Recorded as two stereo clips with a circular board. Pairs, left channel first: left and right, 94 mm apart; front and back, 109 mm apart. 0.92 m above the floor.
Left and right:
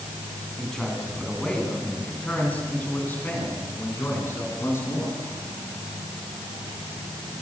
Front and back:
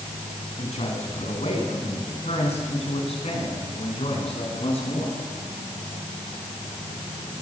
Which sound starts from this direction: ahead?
A man speaking, at 0.6 s.